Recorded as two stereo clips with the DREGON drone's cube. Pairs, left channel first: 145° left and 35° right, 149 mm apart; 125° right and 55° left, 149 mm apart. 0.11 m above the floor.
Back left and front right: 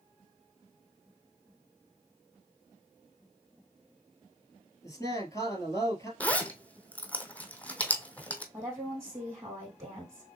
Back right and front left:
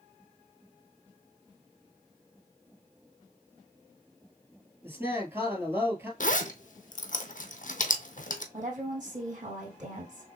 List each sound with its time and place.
4.8 s a man speaking: 110° left, 1.3 m
6.2 s a zipper: 135° right, 0.7 m
8.5 s a woman speaking: 35° left, 3.5 m